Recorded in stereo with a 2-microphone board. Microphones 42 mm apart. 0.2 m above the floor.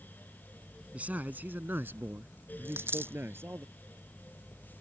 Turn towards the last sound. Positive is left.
turn(degrees=-60)  # may be behind; listen again after turning